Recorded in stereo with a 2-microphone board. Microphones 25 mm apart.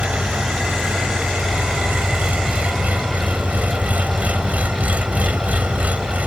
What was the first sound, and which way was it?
An engine running, 90° right.